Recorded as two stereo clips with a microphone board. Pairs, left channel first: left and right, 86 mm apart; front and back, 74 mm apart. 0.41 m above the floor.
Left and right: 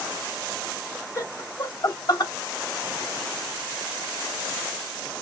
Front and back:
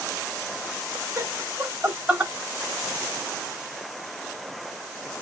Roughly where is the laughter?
Behind left.